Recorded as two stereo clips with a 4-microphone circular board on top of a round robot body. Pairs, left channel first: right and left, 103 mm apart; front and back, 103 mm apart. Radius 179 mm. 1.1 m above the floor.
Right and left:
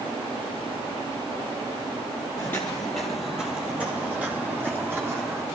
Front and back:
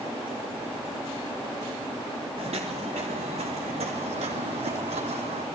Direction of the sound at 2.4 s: 155° right.